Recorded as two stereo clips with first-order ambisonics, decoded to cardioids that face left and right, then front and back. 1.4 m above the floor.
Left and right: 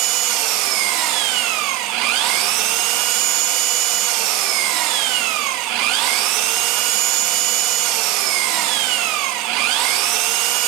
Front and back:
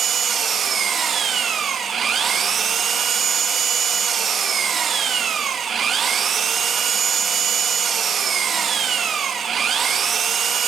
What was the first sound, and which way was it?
An engine running, 110° right.